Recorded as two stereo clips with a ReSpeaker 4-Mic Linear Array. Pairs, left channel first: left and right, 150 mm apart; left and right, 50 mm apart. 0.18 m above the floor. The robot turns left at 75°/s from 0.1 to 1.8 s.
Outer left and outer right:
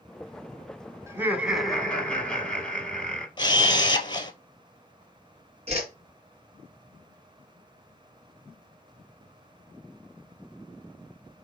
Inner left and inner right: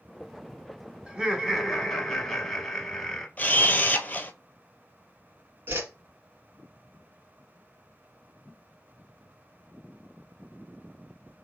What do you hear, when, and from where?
1.1 s laughter: 20° right (ahead or behind), 1.1 m; by 3.3 s 5° left (ahead or behind), 1.1 m
3.4 s a camera shutter: 35° left (ahead or behind), 0.7 m
5.7 s a whoosh: 45° right (ahead or behind), 1.4 m